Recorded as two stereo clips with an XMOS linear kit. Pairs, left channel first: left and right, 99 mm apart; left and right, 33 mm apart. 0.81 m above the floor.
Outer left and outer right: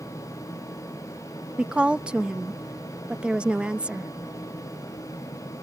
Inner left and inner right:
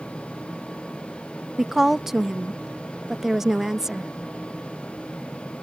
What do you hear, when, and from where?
1.6 s a woman speaking: 10° right (ahead or behind)